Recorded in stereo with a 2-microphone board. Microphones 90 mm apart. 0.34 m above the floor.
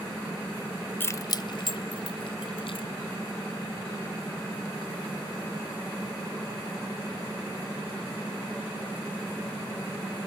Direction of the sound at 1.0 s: 20° left (ahead or behind).